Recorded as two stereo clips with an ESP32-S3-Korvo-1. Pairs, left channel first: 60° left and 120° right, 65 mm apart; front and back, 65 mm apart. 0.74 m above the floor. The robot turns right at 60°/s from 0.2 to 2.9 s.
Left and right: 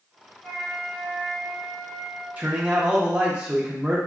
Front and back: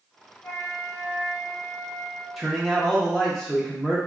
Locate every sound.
0.4 s a flute: 25° right, 1.3 m; by 2.3 s 85° left, 1.3 m
2.4 s a man speaking: 105° right, 0.6 m; by 4.0 s 75° right, 0.6 m